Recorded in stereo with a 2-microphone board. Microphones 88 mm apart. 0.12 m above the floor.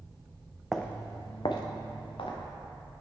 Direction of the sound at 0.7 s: Centre (ahead or behind).